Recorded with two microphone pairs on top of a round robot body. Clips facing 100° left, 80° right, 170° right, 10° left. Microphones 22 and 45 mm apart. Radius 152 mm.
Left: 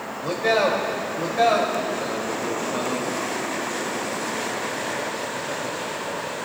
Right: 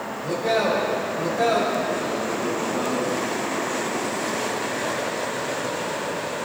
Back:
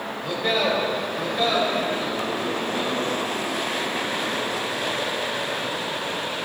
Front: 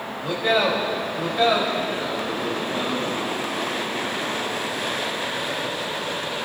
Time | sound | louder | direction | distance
0.2 | a man speaking | left 2 dB, front 3 dB | 85° left | 3 m